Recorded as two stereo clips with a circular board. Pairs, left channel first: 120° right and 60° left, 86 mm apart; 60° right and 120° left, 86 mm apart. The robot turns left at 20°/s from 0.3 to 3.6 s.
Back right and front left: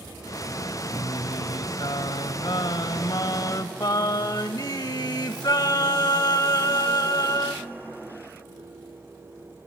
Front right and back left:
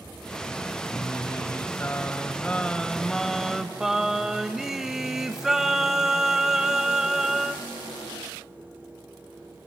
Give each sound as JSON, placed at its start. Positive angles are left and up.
{"t": 0.9, "sound": "singing", "azimuth_deg": -100, "distance_m": 0.7}